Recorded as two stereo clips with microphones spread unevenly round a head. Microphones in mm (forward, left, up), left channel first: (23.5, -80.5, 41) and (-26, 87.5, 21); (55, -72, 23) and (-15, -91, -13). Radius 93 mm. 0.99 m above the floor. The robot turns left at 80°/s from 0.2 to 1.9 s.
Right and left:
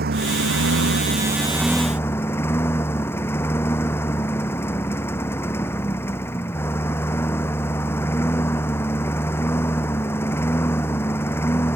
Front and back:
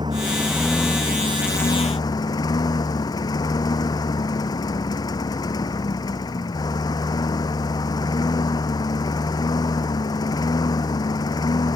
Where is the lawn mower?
140° left; by 11.8 s 5° left.